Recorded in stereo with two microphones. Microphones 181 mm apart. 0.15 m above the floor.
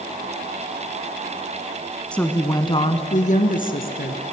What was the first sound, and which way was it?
A woman speaking, 5° left (ahead or behind).